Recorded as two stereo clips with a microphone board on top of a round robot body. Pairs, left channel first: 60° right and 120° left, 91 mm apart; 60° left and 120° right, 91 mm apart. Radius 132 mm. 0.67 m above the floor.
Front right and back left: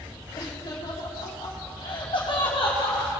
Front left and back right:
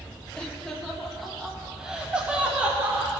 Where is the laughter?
20° right, 2.5 m; by 3.1 s 50° right, 3 m.